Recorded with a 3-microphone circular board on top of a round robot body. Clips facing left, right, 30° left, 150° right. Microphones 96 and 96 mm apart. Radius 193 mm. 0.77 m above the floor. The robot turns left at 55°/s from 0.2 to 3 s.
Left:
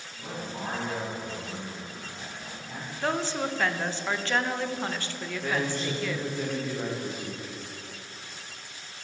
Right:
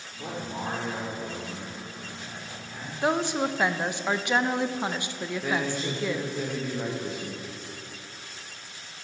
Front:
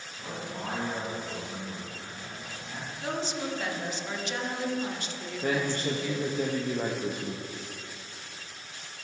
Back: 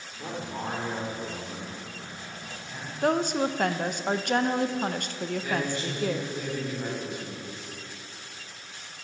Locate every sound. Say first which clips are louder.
0.2 s a man speaking: right 2 dB, back 3 dB; 100° right, 3 m; by 2.9 s 110° left, 3 m
3.0 s a woman speaking: right 3 dB, back 9 dB; 160° right, 0.8 m
5.4 s a man speaking: even, front 5 dB; 5° right, 1.4 m